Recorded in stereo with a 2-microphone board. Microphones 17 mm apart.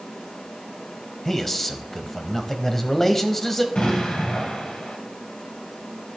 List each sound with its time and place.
1.2 s a man speaking: 20° left (ahead or behind), 1.0 m
3.8 s an explosion: 65° left (ahead or behind), 3.5 m